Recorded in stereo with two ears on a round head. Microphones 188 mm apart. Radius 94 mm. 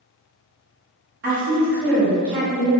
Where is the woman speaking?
50° right (ahead or behind), 0.9 m.